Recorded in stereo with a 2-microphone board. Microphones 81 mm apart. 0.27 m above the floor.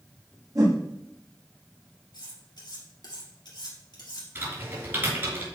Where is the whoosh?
50° right (ahead or behind), 3.5 m.